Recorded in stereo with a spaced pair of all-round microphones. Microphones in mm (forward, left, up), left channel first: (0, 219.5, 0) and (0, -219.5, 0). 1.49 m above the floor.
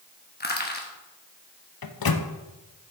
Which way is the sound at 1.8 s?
55° left (ahead or behind).